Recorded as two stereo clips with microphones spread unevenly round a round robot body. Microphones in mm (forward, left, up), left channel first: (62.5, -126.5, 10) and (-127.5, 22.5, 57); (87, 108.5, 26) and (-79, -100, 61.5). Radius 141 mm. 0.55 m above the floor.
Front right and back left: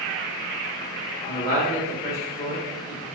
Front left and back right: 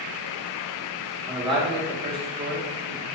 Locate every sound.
1.2 s a man speaking: 55° right, 1.3 m